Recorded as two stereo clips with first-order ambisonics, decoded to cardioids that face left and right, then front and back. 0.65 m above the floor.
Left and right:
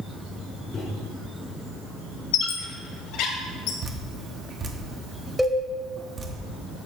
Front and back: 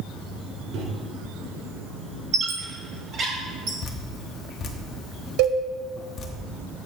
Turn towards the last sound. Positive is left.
turn(degrees=180)